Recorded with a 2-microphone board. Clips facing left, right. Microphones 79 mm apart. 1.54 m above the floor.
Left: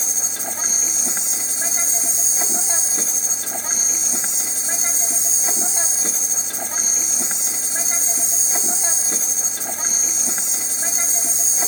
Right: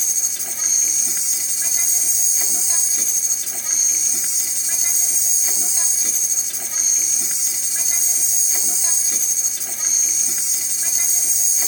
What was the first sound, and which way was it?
An insect, 30° left (ahead or behind).